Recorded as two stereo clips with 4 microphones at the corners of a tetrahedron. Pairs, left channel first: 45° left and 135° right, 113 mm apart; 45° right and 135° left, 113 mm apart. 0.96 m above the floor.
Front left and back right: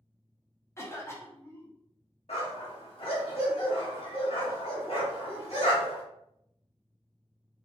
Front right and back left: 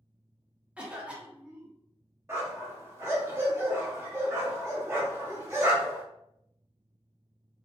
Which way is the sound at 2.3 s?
70° left.